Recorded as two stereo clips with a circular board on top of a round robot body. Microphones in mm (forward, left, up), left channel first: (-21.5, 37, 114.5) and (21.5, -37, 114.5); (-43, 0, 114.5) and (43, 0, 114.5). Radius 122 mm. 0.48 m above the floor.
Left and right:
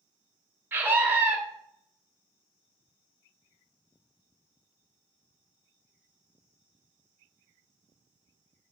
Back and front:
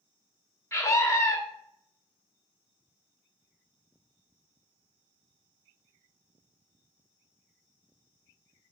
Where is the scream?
125° right, 1.6 m.